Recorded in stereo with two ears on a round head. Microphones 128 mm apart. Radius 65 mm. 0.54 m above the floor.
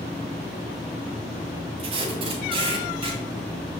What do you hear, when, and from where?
1.8 s tape being pulled: 35° right (ahead or behind), 1.9 m